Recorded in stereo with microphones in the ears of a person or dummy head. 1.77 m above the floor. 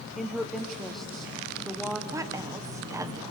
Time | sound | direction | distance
0.2 | a woman speaking | centre (ahead or behind) | 1.3 m
2.1 | a woman speaking | 10° right (ahead or behind) | 1.4 m